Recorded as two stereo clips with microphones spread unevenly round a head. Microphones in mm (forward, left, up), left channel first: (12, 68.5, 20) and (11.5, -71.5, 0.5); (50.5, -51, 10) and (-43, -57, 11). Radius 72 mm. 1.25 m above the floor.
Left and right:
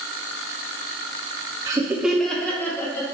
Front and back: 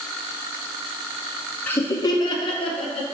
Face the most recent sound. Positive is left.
turn(degrees=15)